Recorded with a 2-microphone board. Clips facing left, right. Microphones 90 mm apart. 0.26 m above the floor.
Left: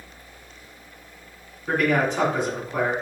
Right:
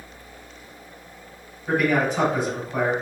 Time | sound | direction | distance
1.7 | a man speaking | 5° right (ahead or behind) | 1.8 m